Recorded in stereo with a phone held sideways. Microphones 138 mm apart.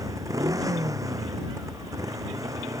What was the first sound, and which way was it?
A motorcycle, 25° right (ahead or behind).